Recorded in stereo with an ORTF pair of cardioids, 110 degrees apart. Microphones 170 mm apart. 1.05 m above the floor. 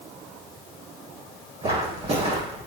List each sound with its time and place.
1.6 s footsteps: 40° right, 3.5 m